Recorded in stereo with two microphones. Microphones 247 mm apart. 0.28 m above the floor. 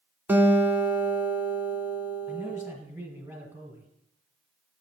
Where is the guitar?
10° right (ahead or behind), 0.9 m.